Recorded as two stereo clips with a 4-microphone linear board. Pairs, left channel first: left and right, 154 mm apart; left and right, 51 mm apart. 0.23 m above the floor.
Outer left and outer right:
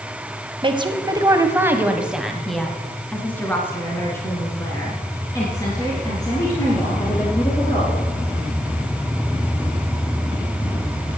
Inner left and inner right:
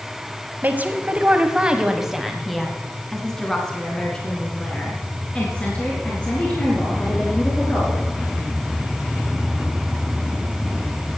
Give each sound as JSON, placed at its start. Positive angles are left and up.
{"t": 0.6, "sound": "a woman speaking", "side_deg": -35, "distance_m": 1.3}